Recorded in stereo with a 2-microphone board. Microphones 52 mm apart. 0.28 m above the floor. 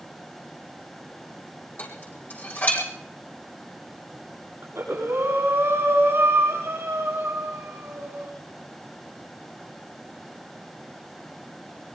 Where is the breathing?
55° right (ahead or behind), 7 m.